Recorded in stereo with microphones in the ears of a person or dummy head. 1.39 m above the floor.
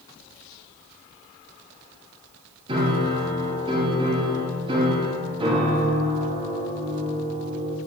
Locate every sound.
2.7 s a piano: 25° right (ahead or behind), 2.5 m